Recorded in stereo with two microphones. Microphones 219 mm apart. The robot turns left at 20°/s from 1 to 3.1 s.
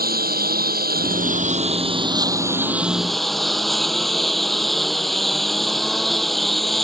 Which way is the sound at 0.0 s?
140° right.